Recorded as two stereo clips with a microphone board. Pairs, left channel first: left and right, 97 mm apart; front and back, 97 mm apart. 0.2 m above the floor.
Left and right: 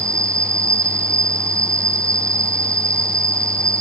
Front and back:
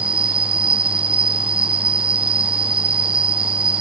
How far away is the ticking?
No ticking in this recording.